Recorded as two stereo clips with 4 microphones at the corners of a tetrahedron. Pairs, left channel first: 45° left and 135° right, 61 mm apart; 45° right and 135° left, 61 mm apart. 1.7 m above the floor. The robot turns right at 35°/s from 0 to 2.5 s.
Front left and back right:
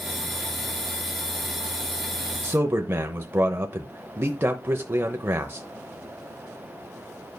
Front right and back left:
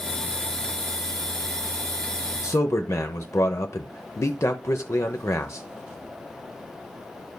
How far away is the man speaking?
About 0.7 m.